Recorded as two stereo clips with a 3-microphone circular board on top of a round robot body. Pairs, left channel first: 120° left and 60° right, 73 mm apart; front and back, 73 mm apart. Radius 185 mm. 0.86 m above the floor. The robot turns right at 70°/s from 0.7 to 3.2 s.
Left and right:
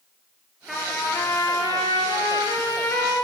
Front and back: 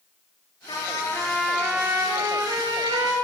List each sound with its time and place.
0.7 s a trumpet: 30° left, 5 m; by 3.1 s 160° right, 5 m